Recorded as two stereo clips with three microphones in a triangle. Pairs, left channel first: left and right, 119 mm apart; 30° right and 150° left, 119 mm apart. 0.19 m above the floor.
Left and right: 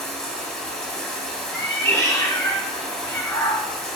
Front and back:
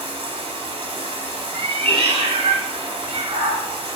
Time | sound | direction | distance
0.0 | running water | 175° left | 0.9 m
1.5 | a cat meowing | 150° left | 0.8 m